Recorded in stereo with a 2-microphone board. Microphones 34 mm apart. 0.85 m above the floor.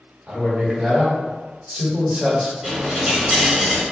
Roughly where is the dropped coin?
Centre.